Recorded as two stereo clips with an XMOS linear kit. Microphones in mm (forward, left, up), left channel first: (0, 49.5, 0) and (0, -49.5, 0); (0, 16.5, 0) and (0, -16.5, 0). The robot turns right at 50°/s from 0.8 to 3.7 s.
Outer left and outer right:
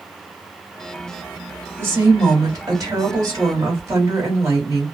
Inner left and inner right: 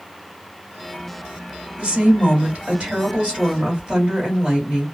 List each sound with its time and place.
1.8 s a woman speaking: 140° right, 1.7 m; by 4.8 s 45° right, 1.7 m